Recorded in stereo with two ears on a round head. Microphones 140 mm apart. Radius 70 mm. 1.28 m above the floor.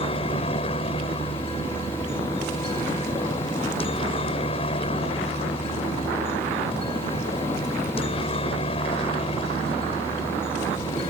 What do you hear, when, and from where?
0.0 s a helicopter: 35° left (ahead or behind)